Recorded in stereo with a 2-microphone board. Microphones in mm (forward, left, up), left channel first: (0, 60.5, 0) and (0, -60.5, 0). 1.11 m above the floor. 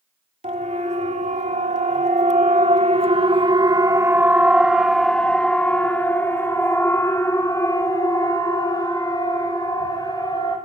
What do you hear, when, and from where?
0.4 s a siren: 70° right (ahead or behind), 3 m; by 10.6 s 35° left (ahead or behind), 6 m